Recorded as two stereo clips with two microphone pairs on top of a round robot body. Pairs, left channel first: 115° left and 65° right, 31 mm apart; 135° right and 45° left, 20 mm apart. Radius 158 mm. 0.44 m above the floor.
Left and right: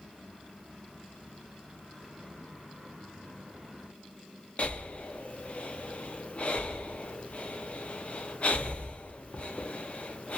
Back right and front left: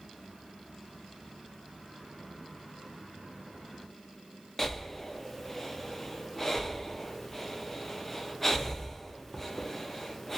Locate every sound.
4.6 s breathing: 140° left, 0.6 m